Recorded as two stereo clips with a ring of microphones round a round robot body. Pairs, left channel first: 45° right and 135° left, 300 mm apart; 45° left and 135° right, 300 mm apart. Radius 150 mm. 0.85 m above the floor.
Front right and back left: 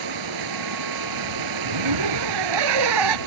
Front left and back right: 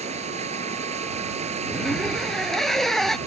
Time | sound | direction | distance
0.0 | running water | 155° left | ?
1.7 | a zipper | 135° left | ?